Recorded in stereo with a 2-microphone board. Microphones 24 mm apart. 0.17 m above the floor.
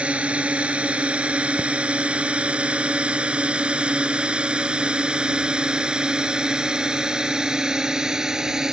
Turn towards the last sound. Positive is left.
turn(degrees=-30)  # may be behind; listen again after turning